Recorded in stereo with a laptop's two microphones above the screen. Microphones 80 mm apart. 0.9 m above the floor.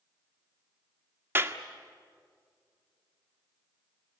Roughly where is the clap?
Right.